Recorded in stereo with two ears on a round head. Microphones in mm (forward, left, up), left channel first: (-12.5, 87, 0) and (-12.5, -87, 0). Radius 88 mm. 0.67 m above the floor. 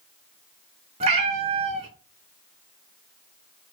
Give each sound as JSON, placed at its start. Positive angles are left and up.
{"t": 1.0, "sound": "a cat meowing", "side_deg": -35, "distance_m": 0.7}